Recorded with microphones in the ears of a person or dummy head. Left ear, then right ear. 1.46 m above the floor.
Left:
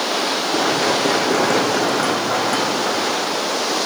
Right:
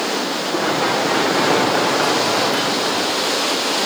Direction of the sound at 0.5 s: 20° left (ahead or behind).